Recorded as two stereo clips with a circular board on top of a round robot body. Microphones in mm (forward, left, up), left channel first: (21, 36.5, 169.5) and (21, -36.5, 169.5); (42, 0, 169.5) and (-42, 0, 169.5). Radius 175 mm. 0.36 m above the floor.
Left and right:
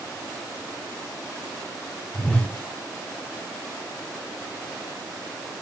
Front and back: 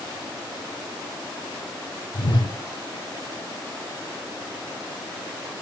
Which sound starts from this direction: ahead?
A whoosh, at 2.1 s.